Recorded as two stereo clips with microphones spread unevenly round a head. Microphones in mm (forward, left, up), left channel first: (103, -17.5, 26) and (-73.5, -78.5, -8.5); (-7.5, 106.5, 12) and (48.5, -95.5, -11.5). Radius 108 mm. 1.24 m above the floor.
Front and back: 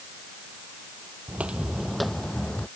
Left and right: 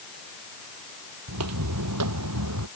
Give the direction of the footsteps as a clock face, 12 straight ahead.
2 o'clock.